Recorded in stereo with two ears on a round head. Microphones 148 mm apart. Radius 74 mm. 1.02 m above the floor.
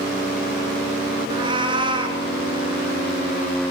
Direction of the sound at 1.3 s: 30° right (ahead or behind).